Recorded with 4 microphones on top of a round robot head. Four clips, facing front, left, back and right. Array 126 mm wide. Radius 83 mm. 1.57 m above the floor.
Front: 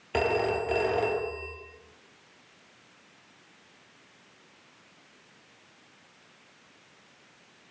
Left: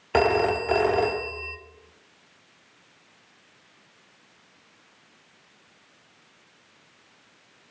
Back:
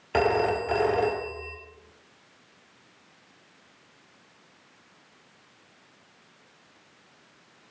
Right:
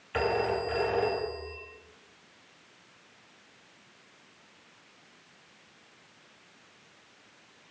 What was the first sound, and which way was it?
A phone ringing, 85° left.